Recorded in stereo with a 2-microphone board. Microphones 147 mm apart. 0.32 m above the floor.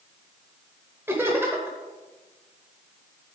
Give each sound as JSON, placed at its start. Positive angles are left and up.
{"t": 1.1, "sound": "laughter", "side_deg": -15, "distance_m": 1.0}